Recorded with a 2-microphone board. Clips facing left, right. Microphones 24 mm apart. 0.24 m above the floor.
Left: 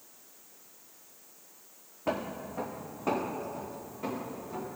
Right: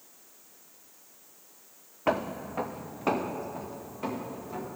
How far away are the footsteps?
About 0.7 m.